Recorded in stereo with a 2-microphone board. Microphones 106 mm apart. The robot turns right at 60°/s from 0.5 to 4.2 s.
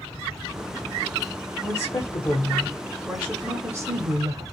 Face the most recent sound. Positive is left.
turn(degrees=-95)